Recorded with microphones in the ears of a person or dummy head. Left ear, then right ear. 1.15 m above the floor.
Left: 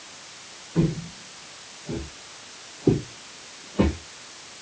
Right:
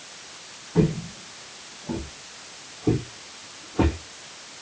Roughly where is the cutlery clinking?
I don't hear cutlery clinking.